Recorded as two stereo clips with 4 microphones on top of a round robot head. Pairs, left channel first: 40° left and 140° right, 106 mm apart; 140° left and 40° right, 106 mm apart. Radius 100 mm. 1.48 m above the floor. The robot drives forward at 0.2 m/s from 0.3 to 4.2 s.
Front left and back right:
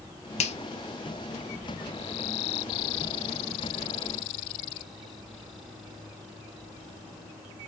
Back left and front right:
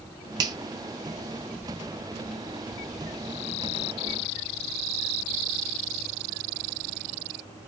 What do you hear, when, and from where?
0.4 s a finger snap: 15° left, 0.5 m